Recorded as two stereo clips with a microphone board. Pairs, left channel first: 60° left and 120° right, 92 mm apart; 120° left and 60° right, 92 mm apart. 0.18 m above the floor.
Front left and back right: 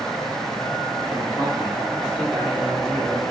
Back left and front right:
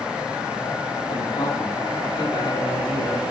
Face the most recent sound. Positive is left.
turn(degrees=145)